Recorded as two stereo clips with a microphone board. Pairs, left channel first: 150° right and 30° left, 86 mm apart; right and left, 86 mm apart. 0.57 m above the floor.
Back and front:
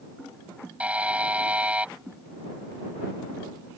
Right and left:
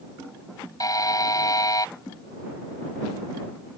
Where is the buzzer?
45° right.